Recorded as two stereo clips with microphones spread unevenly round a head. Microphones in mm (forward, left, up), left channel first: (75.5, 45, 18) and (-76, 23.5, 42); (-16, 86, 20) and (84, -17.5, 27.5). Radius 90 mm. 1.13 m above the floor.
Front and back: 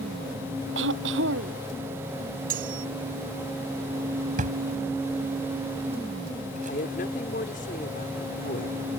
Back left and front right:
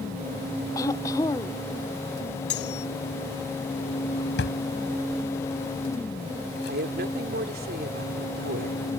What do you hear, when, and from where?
0.8 s throat clearing: 150° right
2.5 s cutlery clinking: 160° left
4.4 s a drawer: 150° left
6.7 s a woman speaking: 35° right